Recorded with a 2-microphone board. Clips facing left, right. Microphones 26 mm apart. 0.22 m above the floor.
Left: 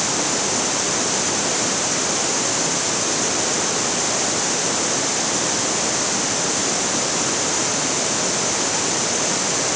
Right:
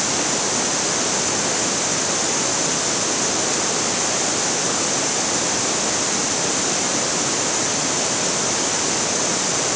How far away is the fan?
I don't hear a fan.